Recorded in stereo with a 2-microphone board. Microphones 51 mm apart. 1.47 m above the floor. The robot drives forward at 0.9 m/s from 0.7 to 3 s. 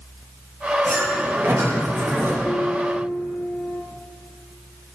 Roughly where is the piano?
Left.